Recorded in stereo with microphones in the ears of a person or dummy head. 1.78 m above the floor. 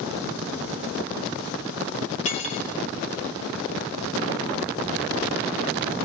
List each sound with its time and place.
2.2 s cutlery clinking: 40° left (ahead or behind), 2.5 m